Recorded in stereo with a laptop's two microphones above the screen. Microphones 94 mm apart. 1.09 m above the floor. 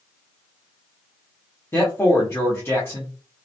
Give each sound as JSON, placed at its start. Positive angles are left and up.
{"t": 1.7, "sound": "a man speaking", "side_deg": 25, "distance_m": 0.7}